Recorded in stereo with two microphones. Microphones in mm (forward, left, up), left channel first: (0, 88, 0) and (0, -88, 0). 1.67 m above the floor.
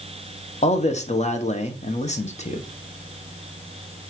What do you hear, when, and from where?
0.6 s a man speaking: 40° left (ahead or behind), 1.2 m